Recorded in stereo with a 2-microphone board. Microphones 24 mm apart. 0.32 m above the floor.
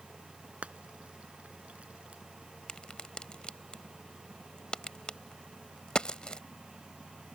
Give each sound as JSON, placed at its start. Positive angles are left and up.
{"t": 0.6, "sound": "frying", "side_deg": -75}
{"t": 2.7, "sound": "a crack", "side_deg": 45}